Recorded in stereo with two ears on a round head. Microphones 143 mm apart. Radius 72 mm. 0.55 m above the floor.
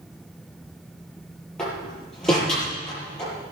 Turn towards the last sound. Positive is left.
turn(degrees=5)  # may be behind; listen again after turning